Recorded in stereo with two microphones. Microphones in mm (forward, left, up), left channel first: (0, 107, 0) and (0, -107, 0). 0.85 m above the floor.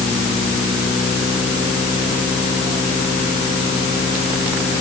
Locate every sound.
Only background noise.